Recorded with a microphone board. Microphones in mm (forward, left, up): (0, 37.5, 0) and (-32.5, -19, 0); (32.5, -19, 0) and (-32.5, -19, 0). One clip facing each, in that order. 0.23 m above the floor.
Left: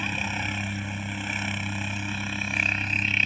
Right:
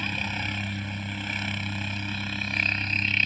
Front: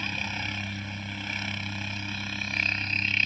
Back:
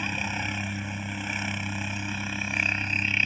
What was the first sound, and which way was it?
A helicopter, 125° left.